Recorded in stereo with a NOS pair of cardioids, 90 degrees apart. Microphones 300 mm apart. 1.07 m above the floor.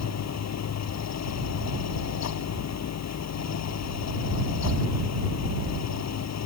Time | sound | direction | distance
0.0 | a fan | 60° left | ?